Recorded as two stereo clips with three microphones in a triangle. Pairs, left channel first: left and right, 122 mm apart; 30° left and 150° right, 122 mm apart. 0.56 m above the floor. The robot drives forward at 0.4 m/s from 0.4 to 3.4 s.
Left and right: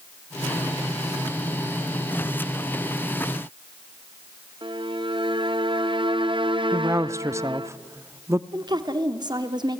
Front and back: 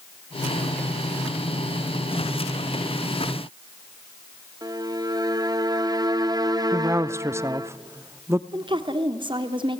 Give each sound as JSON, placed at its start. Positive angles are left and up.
{"t": 4.6, "sound": "a violin", "azimuth_deg": -105, "distance_m": 0.9}
{"t": 6.7, "sound": "a woman speaking", "azimuth_deg": -120, "distance_m": 0.7}
{"t": 8.5, "sound": "a woman speaking", "azimuth_deg": -125, "distance_m": 1.6}